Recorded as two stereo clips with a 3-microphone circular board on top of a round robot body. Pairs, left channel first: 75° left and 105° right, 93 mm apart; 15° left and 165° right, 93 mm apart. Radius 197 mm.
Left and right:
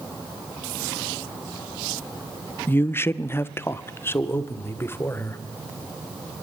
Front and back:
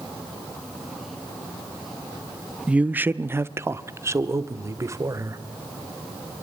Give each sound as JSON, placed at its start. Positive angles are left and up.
{"t": 2.7, "sound": "a man speaking", "azimuth_deg": 125, "distance_m": 0.8}